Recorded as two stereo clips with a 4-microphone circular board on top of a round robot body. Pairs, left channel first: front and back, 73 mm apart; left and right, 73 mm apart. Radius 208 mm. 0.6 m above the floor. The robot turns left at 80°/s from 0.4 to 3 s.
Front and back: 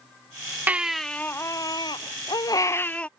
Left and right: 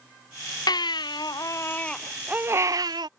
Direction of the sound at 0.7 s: 115° left.